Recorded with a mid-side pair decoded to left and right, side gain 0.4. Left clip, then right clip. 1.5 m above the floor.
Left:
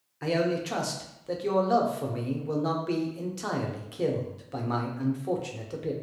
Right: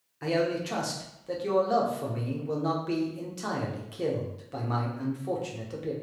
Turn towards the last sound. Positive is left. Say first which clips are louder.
# even
turn(degrees=15)